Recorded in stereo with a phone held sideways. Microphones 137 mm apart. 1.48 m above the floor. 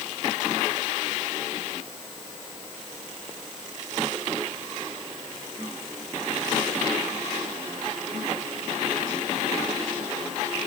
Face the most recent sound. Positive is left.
No sound to turn to.